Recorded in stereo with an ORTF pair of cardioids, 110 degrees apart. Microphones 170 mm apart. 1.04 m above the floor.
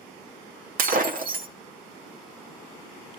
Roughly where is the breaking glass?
Ahead right.